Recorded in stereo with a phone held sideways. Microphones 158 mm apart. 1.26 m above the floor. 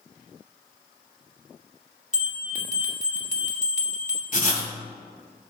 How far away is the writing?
About 1.7 m.